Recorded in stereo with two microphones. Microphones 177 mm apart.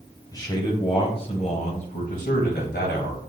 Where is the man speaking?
20° left (ahead or behind), 2.5 m; by 3.2 s 65° left (ahead or behind), 3 m.